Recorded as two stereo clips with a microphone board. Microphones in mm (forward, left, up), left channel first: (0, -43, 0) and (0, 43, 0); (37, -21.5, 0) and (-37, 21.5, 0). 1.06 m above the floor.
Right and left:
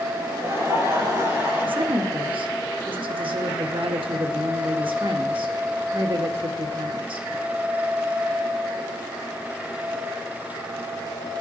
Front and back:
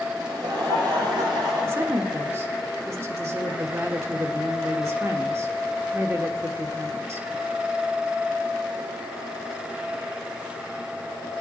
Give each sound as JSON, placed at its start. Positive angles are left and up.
{"t": 0.2, "sound": "laughter", "azimuth_deg": 140, "distance_m": 6.0}
{"t": 1.6, "sound": "a woman speaking", "azimuth_deg": 90, "distance_m": 1.2}